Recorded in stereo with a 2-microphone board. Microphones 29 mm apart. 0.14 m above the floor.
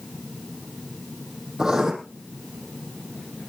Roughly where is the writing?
Right.